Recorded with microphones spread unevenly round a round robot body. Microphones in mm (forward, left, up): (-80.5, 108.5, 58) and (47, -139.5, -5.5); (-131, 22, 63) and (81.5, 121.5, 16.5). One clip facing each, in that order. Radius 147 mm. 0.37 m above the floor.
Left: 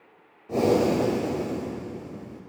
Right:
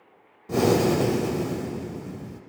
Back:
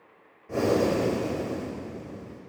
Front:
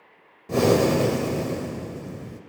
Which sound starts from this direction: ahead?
Breathing, at 0.5 s.